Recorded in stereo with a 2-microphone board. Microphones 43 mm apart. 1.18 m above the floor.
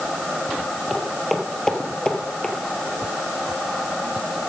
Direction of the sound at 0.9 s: 5° right (ahead or behind).